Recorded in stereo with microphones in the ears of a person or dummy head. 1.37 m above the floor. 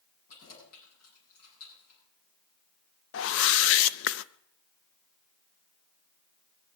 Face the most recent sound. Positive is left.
turn(degrees=60)  # may be behind; listen again after turning